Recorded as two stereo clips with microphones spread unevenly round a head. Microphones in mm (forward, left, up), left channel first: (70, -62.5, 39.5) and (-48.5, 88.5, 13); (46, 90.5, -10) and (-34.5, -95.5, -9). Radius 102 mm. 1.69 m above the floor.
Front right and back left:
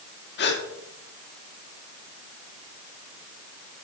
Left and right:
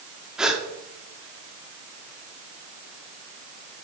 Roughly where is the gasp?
Ahead right.